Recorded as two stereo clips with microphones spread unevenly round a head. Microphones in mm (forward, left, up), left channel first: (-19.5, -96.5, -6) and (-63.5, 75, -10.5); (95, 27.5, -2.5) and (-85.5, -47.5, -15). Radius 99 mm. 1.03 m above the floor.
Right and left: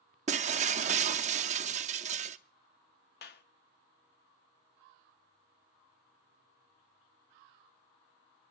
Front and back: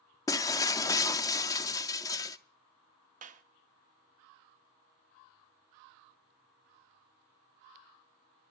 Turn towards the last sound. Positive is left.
turn(degrees=-105)